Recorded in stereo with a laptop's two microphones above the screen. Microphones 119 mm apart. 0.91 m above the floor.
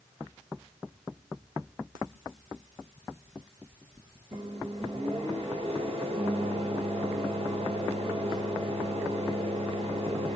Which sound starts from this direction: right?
A microwave, at 4.3 s.